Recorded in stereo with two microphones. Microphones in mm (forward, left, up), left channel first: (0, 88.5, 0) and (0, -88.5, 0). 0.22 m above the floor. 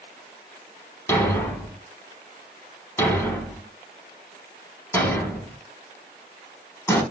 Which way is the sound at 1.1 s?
15° left (ahead or behind).